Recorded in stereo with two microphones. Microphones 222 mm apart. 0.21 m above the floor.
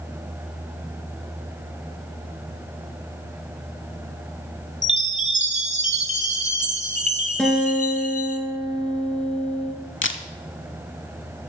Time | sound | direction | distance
4.8 | a chime | 30° right (ahead or behind) | 0.7 m
7.4 | a guitar | 5° left (ahead or behind) | 1.8 m
10.0 | a camera shutter | 60° left (ahead or behind) | 0.6 m